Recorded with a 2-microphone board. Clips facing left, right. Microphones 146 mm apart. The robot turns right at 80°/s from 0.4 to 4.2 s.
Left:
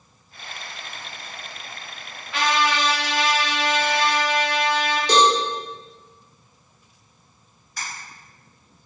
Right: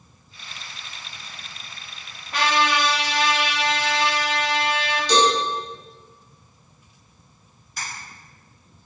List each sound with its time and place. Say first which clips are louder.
2.3 s a trumpet: even; 45° right, 0.6 m; by 5.0 s 105° left, 0.6 m
5.1 s a cowbell: left 1 dB; 55° left (ahead or behind), 0.7 m
7.8 s a camera shutter: even; 5° right (ahead or behind), 1.6 m